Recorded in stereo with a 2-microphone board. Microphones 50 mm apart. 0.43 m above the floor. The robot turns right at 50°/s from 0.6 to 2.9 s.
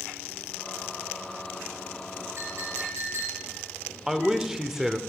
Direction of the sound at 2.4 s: 60° right (ahead or behind).